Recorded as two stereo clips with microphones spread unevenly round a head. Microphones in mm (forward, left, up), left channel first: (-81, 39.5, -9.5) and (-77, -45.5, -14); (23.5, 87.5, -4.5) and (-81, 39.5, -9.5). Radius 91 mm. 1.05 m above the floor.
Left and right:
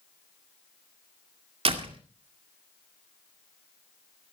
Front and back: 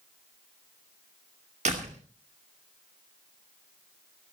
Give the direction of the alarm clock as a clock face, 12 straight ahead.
I don't hear an alarm clock.